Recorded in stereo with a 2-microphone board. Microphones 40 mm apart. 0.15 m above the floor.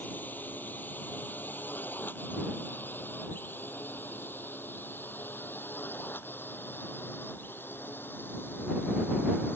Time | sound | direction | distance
0.0 | a drone | 50° left (ahead or behind) | ?